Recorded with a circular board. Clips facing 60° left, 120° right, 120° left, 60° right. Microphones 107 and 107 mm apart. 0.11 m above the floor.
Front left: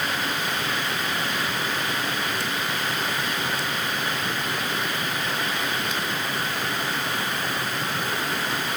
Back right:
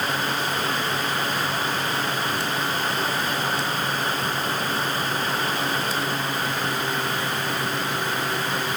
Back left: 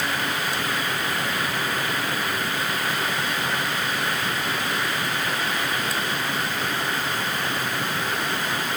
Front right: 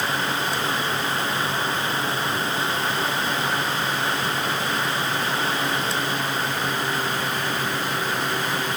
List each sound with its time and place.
Only background noise.